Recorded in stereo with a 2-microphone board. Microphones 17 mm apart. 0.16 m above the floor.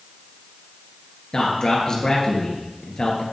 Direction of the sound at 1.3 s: 40° left (ahead or behind).